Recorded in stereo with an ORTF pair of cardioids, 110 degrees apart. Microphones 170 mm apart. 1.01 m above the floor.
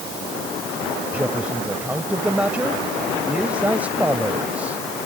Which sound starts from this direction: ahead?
A man speaking, at 1.1 s.